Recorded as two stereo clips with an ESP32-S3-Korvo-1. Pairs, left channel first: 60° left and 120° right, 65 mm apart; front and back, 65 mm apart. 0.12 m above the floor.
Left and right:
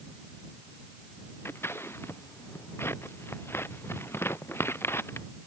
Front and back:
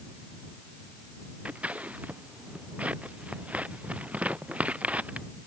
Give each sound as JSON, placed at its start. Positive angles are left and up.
{"t": 1.4, "sound": "scissors", "azimuth_deg": 110}